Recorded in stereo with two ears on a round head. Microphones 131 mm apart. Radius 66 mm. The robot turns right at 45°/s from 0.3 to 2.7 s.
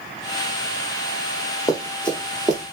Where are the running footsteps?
20° left (ahead or behind), 1.3 m; by 2.7 s 5° right (ahead or behind), 1.2 m.